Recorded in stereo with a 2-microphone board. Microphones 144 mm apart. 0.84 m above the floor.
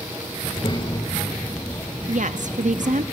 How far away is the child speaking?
About 2.5 m.